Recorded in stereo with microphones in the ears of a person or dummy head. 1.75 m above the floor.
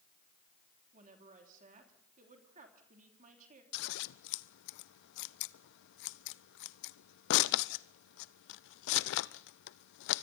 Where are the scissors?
70° left (ahead or behind), 0.6 m.